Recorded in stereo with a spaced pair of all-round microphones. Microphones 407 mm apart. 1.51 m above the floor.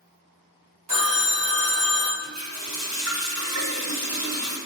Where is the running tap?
40° right (ahead or behind), 0.8 m.